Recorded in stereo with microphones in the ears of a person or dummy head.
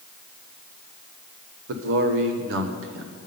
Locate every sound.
1.7 s a man speaking: 70° right (ahead or behind), 0.8 m